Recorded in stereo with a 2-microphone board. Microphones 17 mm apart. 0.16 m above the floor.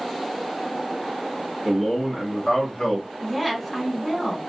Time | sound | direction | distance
1.6 | a man speaking | centre (ahead or behind) | 1.1 m
3.2 | a woman speaking | 5° right (ahead or behind) | 1.2 m